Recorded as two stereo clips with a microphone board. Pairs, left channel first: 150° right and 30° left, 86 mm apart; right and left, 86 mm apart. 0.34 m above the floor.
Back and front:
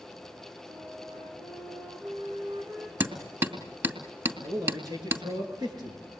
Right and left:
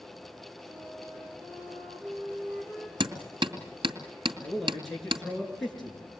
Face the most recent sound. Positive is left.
turn(degrees=-5)